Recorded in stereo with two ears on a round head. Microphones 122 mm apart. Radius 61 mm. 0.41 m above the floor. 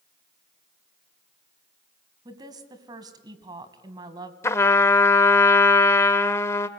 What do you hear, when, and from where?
2.2 s a woman speaking: 30° right (ahead or behind), 2.5 m
4.4 s a trumpet: 20° left (ahead or behind), 1.2 m